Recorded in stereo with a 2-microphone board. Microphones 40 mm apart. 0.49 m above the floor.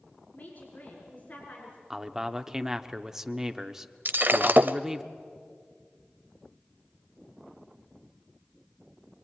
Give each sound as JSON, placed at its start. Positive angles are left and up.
{"t": 0.3, "sound": "a woman speaking", "side_deg": 40, "distance_m": 5.0}
{"t": 1.9, "sound": "a man speaking", "side_deg": -15, "distance_m": 0.9}
{"t": 4.0, "sound": "breaking glass", "side_deg": -55, "distance_m": 0.7}